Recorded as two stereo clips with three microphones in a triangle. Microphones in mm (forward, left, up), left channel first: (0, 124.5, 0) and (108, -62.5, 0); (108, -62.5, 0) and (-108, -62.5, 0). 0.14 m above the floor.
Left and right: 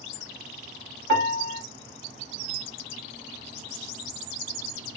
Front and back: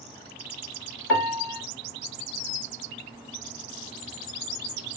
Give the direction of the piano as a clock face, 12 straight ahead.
10 o'clock.